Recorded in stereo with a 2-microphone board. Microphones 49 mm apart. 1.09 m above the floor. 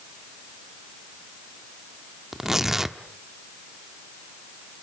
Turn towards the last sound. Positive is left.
turn(degrees=-10)  # may be behind; listen again after turning